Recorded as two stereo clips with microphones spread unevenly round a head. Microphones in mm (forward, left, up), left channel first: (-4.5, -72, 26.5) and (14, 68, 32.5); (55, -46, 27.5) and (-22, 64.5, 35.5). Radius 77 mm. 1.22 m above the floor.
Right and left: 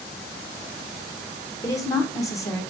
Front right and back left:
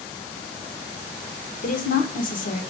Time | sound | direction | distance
1.6 | a woman speaking | 30° right | 1.2 m